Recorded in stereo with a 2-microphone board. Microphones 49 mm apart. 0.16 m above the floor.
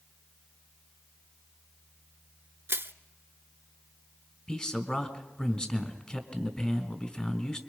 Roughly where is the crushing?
Right.